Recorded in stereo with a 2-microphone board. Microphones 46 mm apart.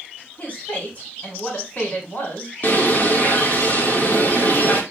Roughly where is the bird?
Left.